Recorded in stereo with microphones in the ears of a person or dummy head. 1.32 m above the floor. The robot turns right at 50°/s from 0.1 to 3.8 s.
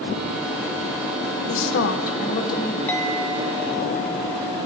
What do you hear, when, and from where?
1.5 s a woman speaking: 110° left, 0.7 m; by 2.8 s 175° left, 0.7 m
2.9 s a clink: 15° left, 0.9 m; by 4.6 s 65° left, 0.9 m